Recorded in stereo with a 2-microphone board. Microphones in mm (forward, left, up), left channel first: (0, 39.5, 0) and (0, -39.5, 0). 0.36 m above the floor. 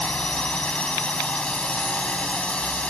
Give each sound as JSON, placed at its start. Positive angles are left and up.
{"t": 0.0, "sound": "a drone", "side_deg": 15}